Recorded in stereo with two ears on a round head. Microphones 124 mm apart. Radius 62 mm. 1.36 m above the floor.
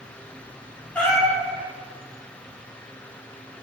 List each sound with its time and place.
0.9 s a cat meowing: 10° left (ahead or behind), 0.9 m